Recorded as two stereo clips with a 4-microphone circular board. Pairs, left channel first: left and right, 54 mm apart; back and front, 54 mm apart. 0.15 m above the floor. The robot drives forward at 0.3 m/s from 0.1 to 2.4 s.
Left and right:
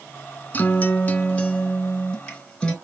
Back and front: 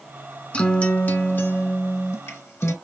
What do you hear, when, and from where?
0.5 s a guitar: 120° left, 0.6 m; by 2.7 s 155° left, 1.0 m